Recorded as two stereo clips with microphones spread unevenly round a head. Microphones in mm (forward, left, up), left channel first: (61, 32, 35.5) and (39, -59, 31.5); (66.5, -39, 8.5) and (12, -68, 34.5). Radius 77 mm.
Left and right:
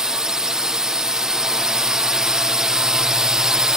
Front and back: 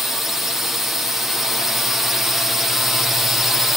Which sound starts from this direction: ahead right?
A drone, at 0.0 s.